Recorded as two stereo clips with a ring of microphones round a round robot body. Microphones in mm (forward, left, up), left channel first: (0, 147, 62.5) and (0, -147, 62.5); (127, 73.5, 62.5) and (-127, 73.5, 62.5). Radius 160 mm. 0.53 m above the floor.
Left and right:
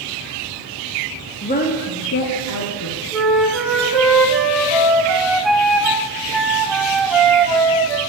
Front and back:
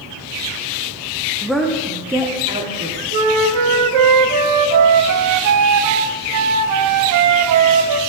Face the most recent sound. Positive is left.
turn(degrees=180)